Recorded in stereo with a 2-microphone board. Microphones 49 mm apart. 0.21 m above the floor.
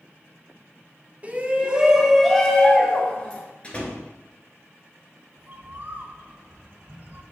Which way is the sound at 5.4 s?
40° right (ahead or behind).